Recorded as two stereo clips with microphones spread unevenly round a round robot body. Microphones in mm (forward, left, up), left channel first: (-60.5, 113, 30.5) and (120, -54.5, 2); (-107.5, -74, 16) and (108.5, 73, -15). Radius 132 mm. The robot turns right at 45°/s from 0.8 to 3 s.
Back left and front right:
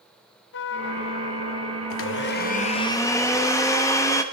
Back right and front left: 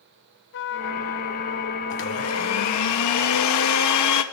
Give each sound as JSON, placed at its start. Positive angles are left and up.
{"t": 0.5, "sound": "a trumpet", "azimuth_deg": 175, "distance_m": 0.8}
{"t": 1.9, "sound": "a blender", "azimuth_deg": 170, "distance_m": 1.6}